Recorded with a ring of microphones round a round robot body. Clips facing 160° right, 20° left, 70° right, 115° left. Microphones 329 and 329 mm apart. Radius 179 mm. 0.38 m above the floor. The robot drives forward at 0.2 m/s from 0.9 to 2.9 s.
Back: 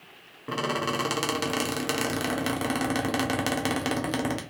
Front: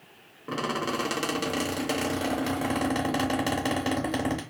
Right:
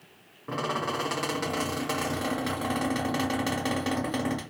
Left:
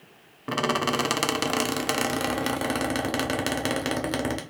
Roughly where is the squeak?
Behind left.